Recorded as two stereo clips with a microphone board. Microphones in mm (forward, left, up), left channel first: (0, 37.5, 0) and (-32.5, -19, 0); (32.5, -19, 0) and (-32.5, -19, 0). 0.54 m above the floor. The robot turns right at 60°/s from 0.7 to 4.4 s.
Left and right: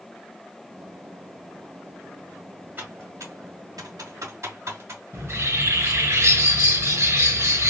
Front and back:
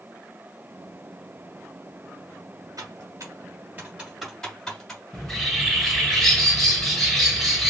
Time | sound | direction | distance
2.8 | typing on a keyboard | straight behind | 1.9 m
5.1 | a bird | 85° right | 3 m